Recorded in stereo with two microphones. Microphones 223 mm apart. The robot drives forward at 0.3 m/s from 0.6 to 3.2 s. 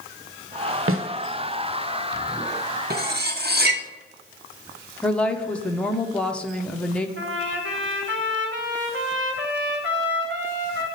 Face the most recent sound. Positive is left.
turn(degrees=-55)  # may be behind; listen again after turning